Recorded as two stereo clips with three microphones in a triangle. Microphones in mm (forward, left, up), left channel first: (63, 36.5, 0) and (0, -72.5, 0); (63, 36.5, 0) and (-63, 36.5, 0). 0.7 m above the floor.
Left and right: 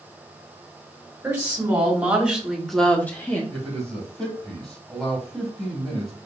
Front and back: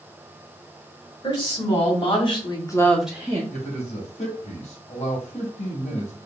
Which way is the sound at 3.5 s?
30° right.